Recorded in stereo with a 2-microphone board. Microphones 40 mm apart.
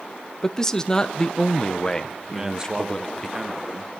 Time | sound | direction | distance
0.4 | a man speaking | 20° left (ahead or behind) | 0.9 m
2.3 | a man speaking | 20° right (ahead or behind) | 1.3 m